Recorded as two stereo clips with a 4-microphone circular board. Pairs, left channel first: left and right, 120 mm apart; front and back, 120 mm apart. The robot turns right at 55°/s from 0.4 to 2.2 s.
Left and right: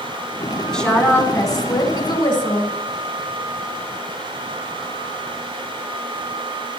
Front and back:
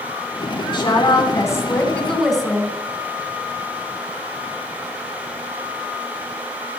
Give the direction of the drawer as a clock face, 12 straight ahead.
No drawer in this recording.